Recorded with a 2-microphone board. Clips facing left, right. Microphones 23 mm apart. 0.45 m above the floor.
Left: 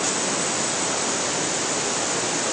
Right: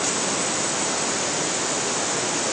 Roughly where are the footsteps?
No footsteps in this recording.